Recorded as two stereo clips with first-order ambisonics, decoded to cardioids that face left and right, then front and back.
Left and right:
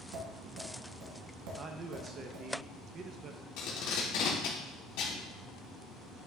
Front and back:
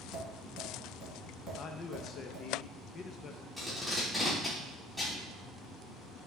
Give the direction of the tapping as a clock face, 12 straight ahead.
3 o'clock.